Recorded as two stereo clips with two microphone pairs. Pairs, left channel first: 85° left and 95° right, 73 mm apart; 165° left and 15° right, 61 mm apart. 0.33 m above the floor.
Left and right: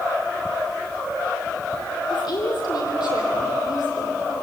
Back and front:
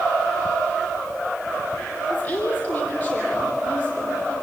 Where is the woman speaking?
100° left, 8.5 m.